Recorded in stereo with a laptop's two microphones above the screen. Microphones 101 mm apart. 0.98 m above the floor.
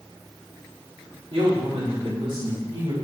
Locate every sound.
1.3 s a man speaking: 75° right (ahead or behind), 3 m; by 3.0 s 60° right (ahead or behind), 1.7 m